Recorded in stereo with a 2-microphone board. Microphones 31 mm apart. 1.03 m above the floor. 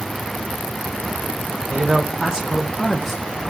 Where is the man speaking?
45° right (ahead or behind), 1.0 m; by 3.2 s 15° left (ahead or behind), 0.8 m.